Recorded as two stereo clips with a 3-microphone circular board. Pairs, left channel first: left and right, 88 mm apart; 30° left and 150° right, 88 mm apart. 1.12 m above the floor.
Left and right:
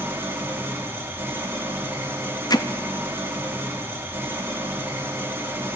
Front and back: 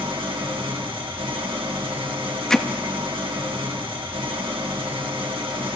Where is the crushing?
No crushing in this recording.